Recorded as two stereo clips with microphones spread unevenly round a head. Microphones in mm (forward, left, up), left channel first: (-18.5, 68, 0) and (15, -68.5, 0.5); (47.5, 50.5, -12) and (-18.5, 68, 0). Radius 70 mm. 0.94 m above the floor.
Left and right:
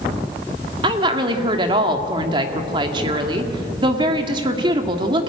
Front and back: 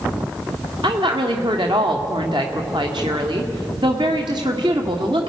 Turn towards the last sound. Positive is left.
turn(degrees=-135)